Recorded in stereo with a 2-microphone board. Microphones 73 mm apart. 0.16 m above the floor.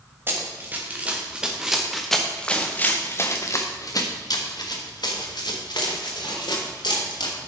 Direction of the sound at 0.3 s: 30° right (ahead or behind).